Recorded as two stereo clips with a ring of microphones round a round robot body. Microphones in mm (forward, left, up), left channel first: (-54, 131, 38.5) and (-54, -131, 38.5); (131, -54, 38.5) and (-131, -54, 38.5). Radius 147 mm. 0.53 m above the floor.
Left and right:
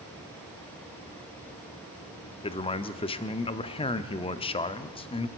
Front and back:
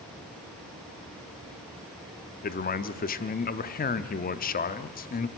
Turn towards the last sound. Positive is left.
turn(degrees=30)